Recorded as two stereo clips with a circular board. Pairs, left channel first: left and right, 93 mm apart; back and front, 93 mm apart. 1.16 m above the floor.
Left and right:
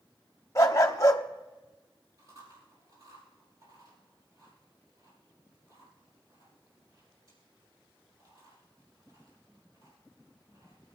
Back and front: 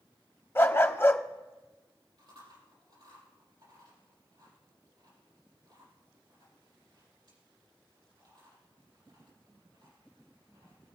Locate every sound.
0.6 s a dog barking: 130° left, 0.8 m
2.2 s chewing: 40° right, 6 m